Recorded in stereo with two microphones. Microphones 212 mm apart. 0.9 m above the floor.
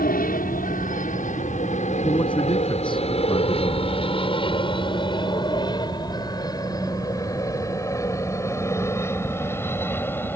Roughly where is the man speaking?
Left.